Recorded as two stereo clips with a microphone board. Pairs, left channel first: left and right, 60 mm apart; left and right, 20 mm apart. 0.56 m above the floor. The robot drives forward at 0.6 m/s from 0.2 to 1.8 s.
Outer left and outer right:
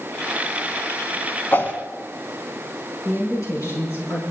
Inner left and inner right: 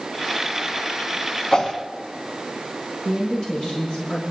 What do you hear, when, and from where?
1.5 s a whoosh: 35° left (ahead or behind), 1.1 m
3.0 s a woman speaking: 55° left (ahead or behind), 7 m